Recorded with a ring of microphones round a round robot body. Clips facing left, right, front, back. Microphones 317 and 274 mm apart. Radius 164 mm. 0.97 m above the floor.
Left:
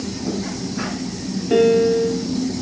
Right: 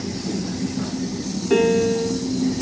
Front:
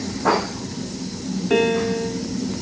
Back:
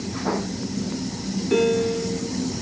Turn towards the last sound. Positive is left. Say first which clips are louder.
# left 3 dB, front 1 dB
turn(degrees=-20)